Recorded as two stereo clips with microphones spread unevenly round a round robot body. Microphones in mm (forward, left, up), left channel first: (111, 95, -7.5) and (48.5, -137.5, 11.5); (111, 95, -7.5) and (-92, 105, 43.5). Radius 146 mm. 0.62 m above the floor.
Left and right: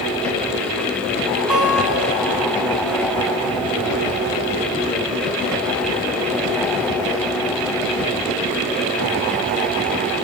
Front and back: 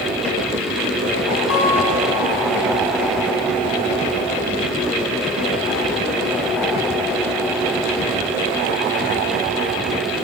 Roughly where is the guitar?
Ahead.